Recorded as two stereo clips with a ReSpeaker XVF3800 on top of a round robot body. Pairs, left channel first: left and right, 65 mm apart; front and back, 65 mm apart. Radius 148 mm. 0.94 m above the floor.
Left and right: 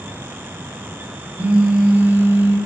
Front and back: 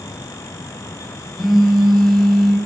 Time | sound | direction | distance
1.4 | a phone buzzing | 90° right | 0.7 m